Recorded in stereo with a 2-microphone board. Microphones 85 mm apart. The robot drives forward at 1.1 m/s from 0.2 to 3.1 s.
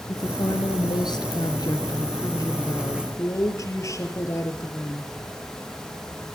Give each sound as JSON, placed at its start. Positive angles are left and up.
{"t": 0.1, "sound": "a woman speaking", "side_deg": 50, "distance_m": 2.5}